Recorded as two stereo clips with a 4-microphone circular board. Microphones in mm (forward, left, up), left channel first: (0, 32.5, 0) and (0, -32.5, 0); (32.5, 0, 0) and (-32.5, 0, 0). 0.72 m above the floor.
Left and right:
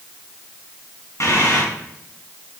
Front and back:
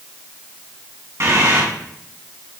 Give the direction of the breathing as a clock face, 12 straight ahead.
7 o'clock.